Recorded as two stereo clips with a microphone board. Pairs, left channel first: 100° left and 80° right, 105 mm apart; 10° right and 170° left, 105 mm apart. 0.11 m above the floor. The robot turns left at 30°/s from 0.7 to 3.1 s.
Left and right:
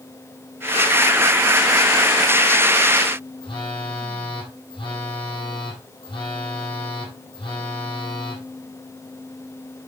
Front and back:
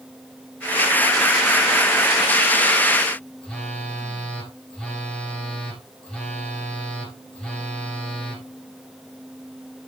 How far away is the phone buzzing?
About 3 m.